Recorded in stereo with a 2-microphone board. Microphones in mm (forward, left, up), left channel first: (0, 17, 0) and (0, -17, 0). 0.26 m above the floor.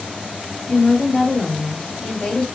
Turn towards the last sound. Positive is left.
turn(degrees=15)  # may be behind; listen again after turning